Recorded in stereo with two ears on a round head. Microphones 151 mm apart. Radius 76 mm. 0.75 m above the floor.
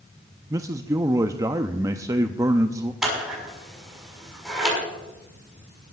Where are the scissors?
5° right (ahead or behind), 6 m.